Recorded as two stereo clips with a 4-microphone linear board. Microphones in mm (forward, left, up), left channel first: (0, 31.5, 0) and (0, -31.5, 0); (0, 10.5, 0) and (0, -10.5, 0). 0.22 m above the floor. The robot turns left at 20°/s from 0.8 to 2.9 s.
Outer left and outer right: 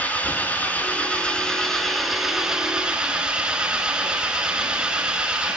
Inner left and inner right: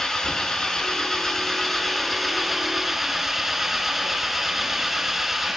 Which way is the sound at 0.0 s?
25° left.